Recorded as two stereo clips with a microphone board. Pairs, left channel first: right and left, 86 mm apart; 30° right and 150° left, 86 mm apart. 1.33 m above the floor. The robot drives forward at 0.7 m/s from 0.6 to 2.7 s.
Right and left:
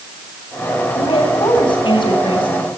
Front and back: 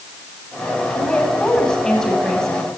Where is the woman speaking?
110° right, 8 m; by 2.7 s 115° right, 8.5 m.